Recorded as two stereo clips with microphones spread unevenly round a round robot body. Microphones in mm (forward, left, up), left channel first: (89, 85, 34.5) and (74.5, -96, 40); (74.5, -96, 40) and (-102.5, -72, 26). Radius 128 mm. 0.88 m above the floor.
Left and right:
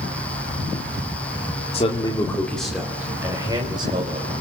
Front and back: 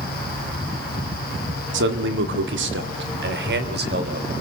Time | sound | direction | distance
1.7 | a man speaking | 150° left | 1.9 m